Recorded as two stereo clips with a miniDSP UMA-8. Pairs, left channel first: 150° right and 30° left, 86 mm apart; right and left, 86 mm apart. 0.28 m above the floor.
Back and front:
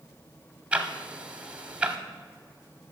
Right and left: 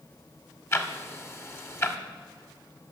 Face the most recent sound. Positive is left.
turn(degrees=-40)